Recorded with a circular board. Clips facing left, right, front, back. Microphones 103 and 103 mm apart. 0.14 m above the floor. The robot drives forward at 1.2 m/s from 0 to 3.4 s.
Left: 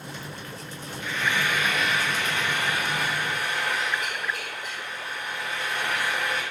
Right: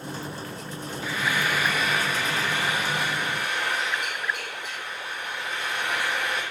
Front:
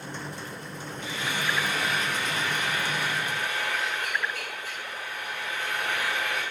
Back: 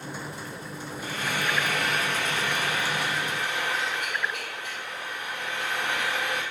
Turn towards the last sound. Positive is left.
turn(degrees=-175)